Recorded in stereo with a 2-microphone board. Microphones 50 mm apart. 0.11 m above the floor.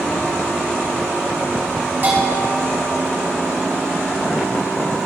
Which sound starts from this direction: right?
A bell, at 2.0 s.